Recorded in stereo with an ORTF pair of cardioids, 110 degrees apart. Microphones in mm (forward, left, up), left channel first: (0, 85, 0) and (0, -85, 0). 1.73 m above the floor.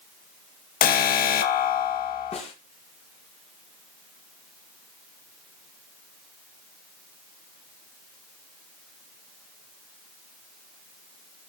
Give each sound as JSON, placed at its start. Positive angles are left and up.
{"t": 0.8, "sound": "an alarm", "azimuth_deg": 60, "distance_m": 1.9}
{"t": 2.3, "sound": "a snare drum", "azimuth_deg": 35, "distance_m": 5.5}